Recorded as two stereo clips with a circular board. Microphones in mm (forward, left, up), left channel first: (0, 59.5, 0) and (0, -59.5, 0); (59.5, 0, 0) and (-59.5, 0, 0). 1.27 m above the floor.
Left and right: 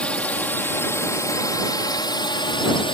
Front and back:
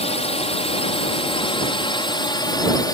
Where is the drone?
10° left; by 2.9 s 55° left.